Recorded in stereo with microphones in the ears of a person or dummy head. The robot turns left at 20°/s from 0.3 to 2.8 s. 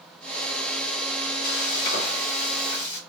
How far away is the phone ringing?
I don't hear a phone ringing.